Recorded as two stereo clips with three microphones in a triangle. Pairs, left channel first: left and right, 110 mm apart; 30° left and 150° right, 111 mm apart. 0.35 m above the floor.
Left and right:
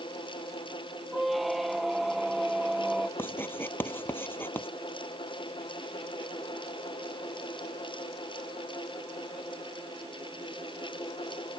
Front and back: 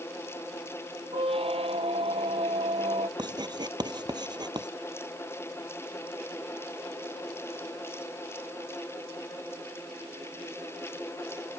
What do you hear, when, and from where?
1.1 s a squeak: straight behind
3.2 s writing: 160° left